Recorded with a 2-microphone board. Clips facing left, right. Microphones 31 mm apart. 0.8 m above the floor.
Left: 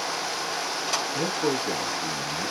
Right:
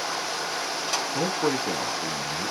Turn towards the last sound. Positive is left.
turn(degrees=-5)  # may be behind; listen again after turning